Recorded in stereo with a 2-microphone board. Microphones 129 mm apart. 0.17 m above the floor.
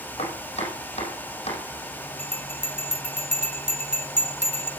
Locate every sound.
0.2 s chopping: 55° left (ahead or behind), 5.5 m
2.2 s a bell: 60° right (ahead or behind), 2 m